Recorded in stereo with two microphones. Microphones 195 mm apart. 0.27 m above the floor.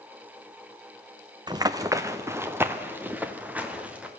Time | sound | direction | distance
1.5 | running footsteps | 20° right (ahead or behind) | 1.1 m